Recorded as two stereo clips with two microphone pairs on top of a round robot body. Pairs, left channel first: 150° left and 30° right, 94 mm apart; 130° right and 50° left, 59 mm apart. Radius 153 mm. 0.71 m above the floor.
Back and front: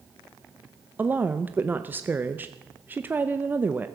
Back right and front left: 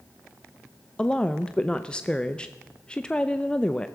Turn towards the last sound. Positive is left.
turn(degrees=-85)